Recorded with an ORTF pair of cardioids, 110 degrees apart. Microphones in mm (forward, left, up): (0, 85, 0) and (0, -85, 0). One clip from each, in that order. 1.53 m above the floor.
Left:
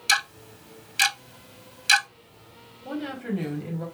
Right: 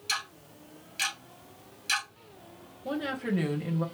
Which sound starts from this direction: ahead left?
Ticking, at 0.1 s.